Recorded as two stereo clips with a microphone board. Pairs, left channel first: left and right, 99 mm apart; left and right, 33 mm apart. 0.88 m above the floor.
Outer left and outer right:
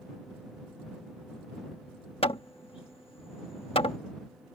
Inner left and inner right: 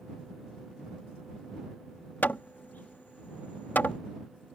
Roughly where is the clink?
No clink in this recording.